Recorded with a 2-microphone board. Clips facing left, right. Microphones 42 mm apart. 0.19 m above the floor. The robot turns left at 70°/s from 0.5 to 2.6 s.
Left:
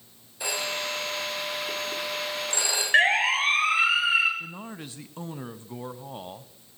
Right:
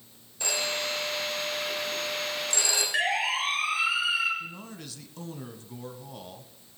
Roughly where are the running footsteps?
I don't hear running footsteps.